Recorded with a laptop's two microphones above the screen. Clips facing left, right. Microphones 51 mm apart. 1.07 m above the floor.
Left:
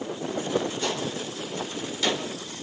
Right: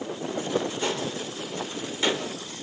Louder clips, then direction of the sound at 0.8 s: Even; 20° right (ahead or behind).